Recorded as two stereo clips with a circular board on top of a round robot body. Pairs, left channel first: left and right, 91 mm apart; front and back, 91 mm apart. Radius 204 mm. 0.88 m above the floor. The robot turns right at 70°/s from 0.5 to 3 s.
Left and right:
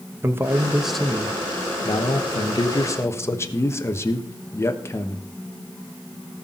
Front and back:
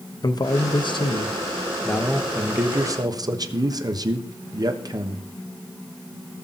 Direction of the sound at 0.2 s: 30° right.